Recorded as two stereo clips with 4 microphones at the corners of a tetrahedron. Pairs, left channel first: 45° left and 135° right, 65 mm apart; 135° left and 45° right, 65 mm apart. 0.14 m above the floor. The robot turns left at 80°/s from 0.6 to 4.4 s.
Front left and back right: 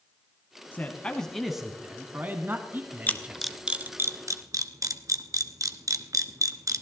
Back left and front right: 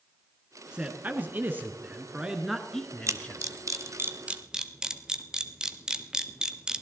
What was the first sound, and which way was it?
A man speaking, 15° left.